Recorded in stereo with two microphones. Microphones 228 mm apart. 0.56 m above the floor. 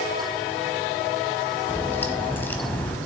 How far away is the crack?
About 1.0 m.